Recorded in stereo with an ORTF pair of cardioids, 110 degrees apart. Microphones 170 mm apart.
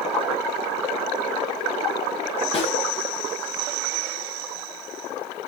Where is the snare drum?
35° left, 7 m.